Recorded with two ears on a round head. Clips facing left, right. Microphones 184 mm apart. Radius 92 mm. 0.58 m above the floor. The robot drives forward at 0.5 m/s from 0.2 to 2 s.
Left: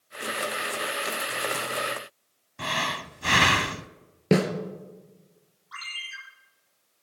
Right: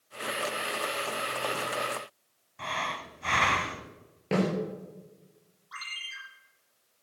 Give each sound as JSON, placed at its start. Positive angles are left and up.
{"t": 2.6, "sound": "breathing", "side_deg": 50, "distance_m": 0.7}
{"t": 4.3, "sound": "a snare drum", "side_deg": 60, "distance_m": 3.0}
{"t": 5.7, "sound": "a ringtone", "side_deg": 0, "distance_m": 8.0}